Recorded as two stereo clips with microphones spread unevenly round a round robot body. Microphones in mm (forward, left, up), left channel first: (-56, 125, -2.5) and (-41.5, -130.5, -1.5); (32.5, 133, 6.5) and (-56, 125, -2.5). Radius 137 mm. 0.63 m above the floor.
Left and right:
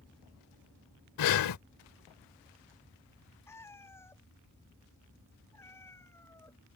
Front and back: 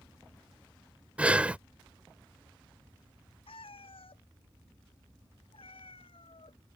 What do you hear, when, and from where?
1.2 s breathing: 105° left
3.5 s a cat meowing: 10° left